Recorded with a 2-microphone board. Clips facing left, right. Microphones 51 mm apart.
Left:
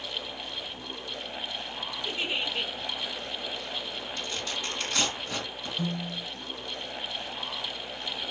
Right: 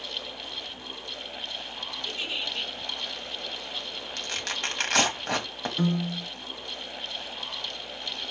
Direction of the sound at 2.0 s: 25° left (ahead or behind).